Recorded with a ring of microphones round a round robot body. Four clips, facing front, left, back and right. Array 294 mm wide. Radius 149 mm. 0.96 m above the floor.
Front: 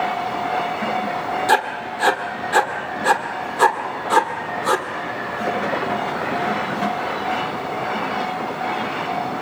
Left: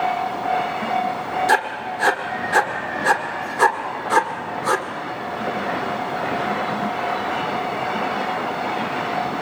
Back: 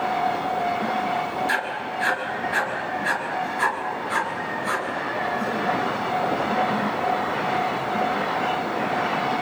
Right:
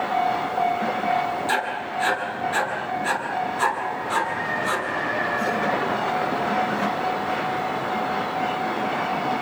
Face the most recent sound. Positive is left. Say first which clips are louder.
# left 5 dB, front 7 dB
turn(degrees=35)